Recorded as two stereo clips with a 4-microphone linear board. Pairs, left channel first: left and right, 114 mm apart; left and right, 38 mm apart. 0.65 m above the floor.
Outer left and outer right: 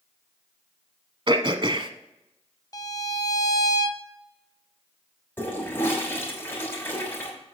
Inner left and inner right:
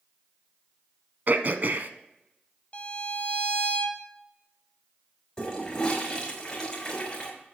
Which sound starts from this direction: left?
A violin, at 2.7 s.